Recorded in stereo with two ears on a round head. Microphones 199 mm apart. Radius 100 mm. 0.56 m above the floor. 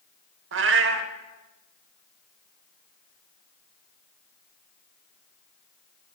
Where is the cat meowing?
55° right (ahead or behind), 0.8 m.